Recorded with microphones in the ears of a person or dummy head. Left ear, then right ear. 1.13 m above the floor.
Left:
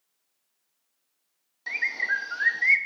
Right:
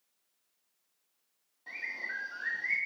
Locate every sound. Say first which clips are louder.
1.7 s a bird: left 11 dB; 60° left (ahead or behind), 1.2 m